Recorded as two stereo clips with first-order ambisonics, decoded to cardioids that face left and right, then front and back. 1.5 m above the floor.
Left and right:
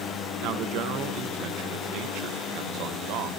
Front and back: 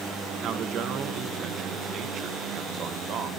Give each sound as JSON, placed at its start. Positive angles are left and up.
{"t": 0.4, "sound": "a man speaking", "azimuth_deg": -125, "distance_m": 1.4}